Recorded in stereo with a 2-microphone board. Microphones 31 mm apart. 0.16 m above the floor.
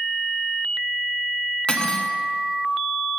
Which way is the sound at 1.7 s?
35° left (ahead or behind).